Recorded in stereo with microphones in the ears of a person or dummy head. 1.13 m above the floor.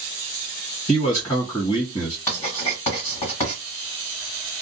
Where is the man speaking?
25° left (ahead or behind), 1.5 m.